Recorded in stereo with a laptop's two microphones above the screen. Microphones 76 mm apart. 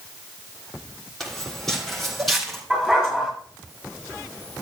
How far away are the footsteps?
About 2.5 m.